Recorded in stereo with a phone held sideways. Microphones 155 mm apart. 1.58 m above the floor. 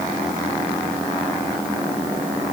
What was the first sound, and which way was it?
Only background noise.